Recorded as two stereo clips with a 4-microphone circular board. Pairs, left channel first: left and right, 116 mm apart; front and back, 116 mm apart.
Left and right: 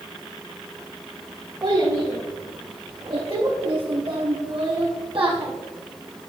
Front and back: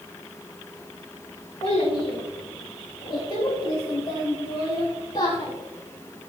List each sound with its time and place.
1.6 s a child speaking: 45° right, 5 m; by 5.5 s 55° right, 3 m